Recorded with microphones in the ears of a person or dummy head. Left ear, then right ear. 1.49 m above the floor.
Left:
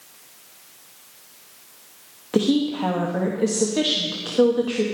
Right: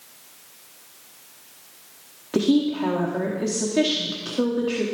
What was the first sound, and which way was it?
A woman speaking, 15° left (ahead or behind).